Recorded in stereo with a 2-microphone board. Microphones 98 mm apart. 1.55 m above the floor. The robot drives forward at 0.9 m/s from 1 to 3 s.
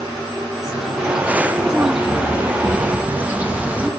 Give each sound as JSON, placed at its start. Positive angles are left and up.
{"t": 0.5, "sound": "a bird", "side_deg": -5, "distance_m": 2.0}